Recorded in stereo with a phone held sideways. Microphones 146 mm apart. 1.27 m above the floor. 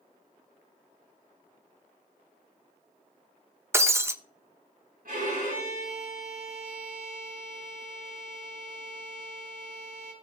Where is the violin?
80° right, 5.5 m.